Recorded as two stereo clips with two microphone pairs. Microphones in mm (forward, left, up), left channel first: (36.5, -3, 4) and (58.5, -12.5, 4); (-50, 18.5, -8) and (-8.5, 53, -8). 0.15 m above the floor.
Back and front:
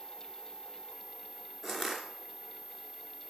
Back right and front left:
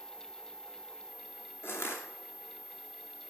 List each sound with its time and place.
1.6 s crushing: 120° right, 2.5 m